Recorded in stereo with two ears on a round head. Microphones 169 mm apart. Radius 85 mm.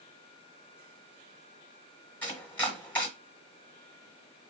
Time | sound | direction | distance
2.2 | chopping | 10° left (ahead or behind) | 1.2 m